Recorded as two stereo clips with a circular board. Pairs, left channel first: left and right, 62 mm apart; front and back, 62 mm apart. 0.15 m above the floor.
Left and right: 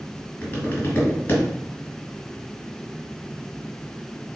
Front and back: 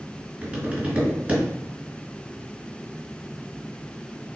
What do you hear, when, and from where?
0.4 s tapping: 120° left, 1.8 m